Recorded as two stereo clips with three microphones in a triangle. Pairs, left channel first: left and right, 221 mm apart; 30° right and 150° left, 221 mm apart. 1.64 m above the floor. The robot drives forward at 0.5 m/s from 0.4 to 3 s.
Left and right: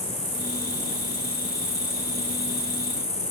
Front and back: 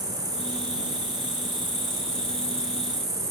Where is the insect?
90° left, 5 m; by 3.3 s 105° left, 5 m.